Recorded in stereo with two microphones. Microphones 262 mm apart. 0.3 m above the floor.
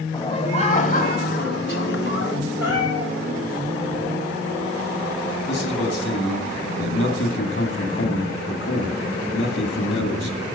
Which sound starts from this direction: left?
A man speaking, at 5.5 s.